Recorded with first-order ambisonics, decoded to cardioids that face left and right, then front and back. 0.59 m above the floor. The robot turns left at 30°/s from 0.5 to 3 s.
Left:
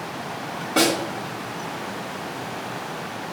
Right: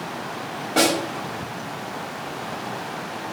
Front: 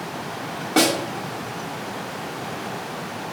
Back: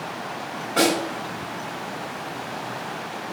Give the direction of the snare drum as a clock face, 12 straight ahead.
12 o'clock.